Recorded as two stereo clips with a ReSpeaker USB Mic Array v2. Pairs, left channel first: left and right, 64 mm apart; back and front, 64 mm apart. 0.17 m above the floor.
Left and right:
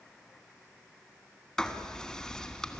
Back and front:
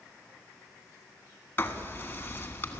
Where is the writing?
165° left, 1.6 m.